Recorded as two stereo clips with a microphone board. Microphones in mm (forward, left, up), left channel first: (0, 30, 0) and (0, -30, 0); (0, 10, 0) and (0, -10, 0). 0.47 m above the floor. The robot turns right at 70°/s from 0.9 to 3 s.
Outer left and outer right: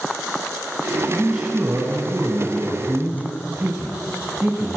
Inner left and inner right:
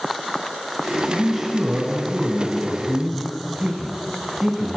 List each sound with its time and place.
1.1 s a man speaking: 175° left, 4 m; by 4.8 s 55° right, 4 m